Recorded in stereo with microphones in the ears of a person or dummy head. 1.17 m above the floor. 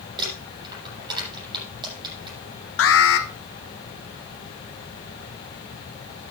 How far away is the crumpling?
About 7 m.